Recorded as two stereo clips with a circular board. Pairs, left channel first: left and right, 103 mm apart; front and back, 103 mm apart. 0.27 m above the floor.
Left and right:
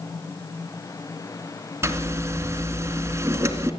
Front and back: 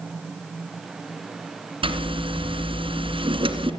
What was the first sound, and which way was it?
A zipper, 155° right.